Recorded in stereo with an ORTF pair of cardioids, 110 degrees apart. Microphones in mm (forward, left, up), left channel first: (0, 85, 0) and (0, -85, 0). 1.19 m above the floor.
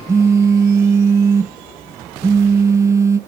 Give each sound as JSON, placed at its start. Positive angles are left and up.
{"t": 0.1, "sound": "a phone buzzing", "azimuth_deg": -20, "distance_m": 0.7}